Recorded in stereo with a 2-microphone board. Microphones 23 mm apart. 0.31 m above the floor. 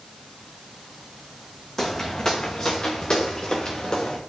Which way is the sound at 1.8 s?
20° left (ahead or behind).